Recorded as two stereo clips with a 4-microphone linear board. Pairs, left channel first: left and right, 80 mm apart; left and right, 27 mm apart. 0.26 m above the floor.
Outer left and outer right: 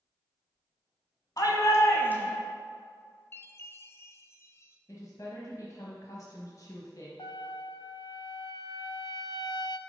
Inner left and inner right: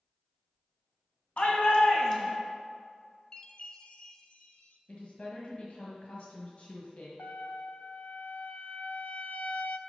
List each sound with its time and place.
1.4 s a shout: 50° left (ahead or behind), 1.9 m; by 2.4 s 10° left (ahead or behind), 1.5 m
3.3 s a chime: 30° left (ahead or behind), 0.5 m
4.9 s a woman speaking: 45° left (ahead or behind), 1.3 m
7.2 s a trumpet: 70° left (ahead or behind), 0.5 m